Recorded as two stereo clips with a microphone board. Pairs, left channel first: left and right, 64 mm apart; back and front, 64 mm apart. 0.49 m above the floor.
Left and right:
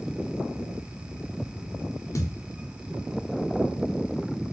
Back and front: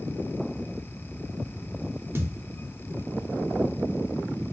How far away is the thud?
About 0.9 m.